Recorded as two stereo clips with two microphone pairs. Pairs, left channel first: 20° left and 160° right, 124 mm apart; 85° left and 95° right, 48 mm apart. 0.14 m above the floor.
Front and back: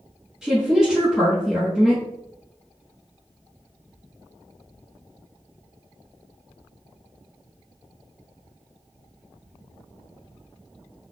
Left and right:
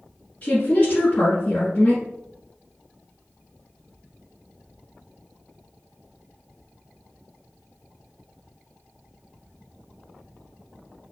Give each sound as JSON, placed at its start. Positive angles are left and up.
{"t": 0.4, "sound": "a woman speaking", "azimuth_deg": 115, "distance_m": 1.4}